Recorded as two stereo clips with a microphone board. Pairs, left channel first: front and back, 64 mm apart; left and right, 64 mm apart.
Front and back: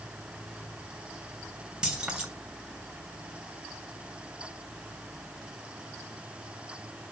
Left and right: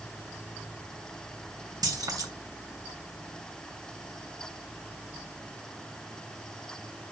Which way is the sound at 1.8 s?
105° right.